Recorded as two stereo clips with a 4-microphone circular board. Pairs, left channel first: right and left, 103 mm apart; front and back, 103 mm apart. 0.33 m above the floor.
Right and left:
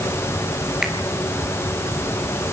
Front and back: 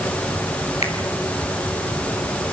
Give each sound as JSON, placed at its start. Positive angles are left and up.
{"t": 0.8, "sound": "a finger snap", "azimuth_deg": 5, "distance_m": 5.0}